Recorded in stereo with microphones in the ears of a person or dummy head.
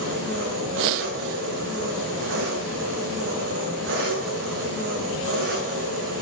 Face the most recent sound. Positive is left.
turn(degrees=-55)  # may be behind; listen again after turning